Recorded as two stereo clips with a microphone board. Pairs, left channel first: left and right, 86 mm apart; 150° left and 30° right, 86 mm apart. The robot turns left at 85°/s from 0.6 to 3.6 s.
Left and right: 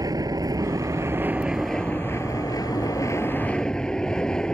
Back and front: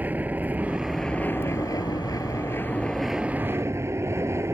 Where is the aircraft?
90° right; by 4.5 s 15° left.